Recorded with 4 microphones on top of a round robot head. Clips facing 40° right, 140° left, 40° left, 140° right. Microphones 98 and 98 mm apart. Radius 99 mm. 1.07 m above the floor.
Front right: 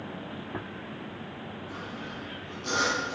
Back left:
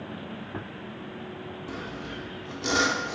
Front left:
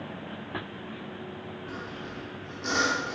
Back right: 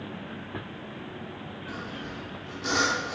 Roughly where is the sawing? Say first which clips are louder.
Back left 2 dB, back right 3 dB; behind left.